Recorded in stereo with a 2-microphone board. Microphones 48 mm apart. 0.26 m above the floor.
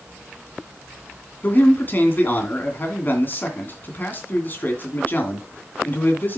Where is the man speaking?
35° left (ahead or behind), 2.5 m.